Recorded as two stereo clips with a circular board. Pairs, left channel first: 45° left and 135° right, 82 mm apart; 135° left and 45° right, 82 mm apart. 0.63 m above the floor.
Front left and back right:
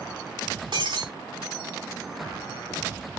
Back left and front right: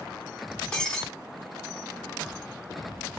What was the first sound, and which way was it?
Breaking glass, 145° right.